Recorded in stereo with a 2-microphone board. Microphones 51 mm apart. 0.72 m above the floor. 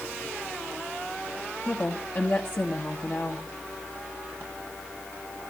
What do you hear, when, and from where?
1.6 s a woman speaking: 45° left (ahead or behind), 1.3 m